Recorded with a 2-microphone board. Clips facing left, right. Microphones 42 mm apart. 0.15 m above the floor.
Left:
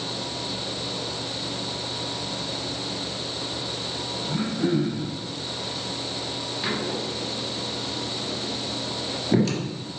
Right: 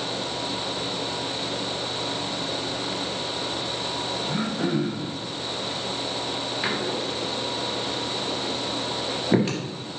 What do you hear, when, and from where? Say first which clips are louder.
4.2 s throat clearing: left 3 dB; 30° right (ahead or behind), 4 m
6.6 s a door slam: even; 25° right (ahead or behind), 2.5 m